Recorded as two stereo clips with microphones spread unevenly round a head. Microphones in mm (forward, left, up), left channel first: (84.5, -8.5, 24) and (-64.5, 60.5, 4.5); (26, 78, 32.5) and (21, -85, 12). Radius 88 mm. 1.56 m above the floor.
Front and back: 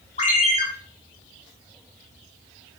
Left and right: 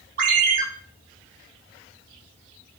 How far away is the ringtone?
About 0.6 m.